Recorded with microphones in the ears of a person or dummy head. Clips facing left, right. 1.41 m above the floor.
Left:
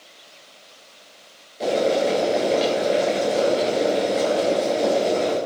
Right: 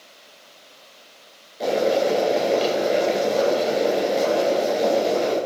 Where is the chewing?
I don't hear chewing.